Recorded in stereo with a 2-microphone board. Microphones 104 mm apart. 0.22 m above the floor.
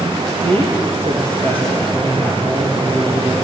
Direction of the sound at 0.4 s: 60° right (ahead or behind).